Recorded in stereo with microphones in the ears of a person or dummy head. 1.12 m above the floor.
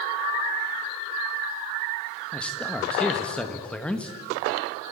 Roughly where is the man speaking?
Centre.